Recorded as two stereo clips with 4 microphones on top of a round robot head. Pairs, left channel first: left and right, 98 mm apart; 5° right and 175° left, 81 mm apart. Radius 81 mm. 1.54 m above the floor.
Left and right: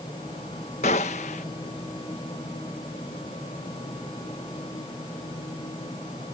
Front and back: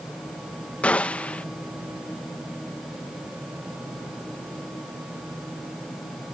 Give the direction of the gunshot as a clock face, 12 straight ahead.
10 o'clock.